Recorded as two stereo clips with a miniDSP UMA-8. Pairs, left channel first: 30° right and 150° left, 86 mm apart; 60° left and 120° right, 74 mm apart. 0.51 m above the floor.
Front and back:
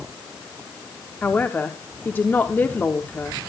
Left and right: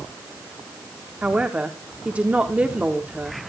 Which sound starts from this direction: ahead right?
A man speaking, at 1.2 s.